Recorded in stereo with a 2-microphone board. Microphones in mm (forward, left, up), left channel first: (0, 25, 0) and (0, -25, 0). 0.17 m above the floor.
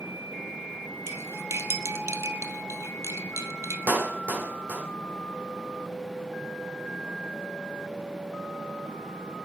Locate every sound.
1.1 s cutlery clinking: 60° right (ahead or behind), 3 m
3.9 s a clap: 45° right (ahead or behind), 5.5 m